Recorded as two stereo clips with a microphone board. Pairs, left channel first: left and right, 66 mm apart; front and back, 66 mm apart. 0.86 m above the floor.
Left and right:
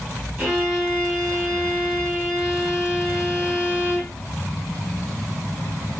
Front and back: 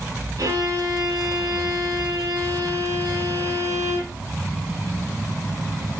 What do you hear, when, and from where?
0.4 s a violin: 170° right, 5.5 m